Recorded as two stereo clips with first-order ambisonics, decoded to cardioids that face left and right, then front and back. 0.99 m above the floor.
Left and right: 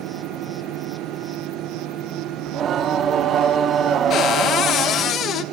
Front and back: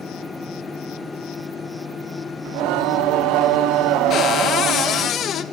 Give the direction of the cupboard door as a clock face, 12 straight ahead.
10 o'clock.